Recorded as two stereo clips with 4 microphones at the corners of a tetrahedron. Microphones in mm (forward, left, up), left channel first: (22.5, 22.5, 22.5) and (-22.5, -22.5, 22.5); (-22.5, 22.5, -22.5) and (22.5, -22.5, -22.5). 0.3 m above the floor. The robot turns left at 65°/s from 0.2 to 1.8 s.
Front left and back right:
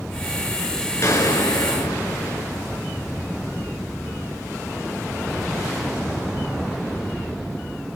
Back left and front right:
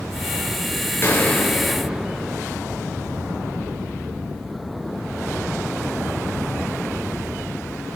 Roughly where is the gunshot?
Left.